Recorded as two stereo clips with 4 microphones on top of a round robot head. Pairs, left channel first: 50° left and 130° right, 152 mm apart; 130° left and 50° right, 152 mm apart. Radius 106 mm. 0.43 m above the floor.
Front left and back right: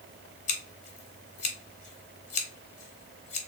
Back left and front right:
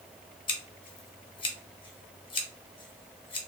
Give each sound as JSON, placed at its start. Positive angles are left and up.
{"t": 0.5, "sound": "scissors", "azimuth_deg": 80, "distance_m": 0.9}